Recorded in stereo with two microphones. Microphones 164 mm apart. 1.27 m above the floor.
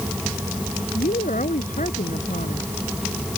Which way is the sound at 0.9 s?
50° left (ahead or behind).